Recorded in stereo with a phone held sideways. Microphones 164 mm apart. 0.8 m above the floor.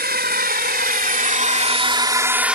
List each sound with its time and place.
0.0 s a drone: 75° right (ahead or behind); by 2.6 s 5° right (ahead or behind)